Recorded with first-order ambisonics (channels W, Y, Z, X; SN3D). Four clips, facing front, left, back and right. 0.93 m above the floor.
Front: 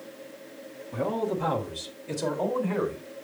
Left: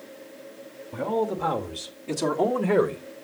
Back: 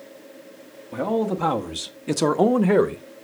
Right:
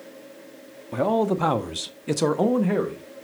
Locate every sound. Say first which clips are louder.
0.9 s a man speaking: right 4 dB, back 5 dB; 110° right, 1.3 m; by 3.0 s 165° left, 0.8 m